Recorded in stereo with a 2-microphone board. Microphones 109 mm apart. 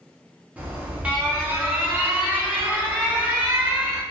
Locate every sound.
0.6 s an alarm: 15° right (ahead or behind), 0.7 m